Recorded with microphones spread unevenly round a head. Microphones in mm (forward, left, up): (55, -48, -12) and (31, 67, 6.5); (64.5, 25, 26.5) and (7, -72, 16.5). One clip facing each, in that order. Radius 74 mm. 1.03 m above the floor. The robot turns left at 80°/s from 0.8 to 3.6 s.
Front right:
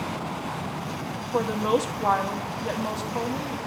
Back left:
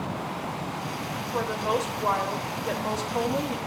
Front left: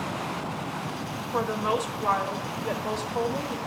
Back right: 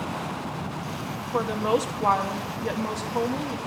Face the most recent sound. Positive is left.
turn(degrees=145)